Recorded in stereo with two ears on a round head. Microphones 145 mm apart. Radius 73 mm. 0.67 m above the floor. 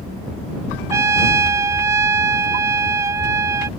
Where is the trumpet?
20° right (ahead or behind).